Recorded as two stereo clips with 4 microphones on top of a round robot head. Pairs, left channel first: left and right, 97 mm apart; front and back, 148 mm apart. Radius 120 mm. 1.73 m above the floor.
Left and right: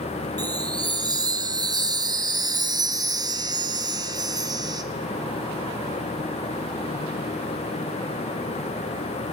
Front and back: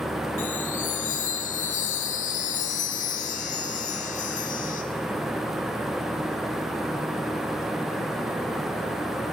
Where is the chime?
40° right, 2 m.